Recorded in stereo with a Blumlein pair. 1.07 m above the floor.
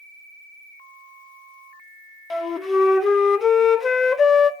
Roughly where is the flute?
Ahead.